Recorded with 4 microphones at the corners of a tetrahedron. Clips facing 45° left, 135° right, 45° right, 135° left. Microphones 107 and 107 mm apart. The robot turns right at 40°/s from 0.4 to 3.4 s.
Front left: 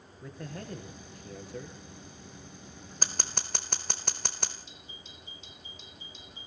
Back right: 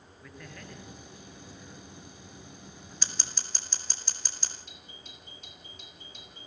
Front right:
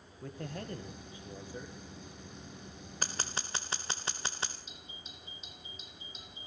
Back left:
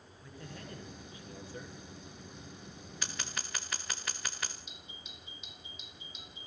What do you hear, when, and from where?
0.2 s a man speaking: 15° right, 3.5 m; by 1.8 s 40° left, 3.5 m
3.0 s scissors: straight ahead, 1.9 m; by 4.5 s 15° left, 1.9 m
4.7 s a doorbell: 100° right, 6.5 m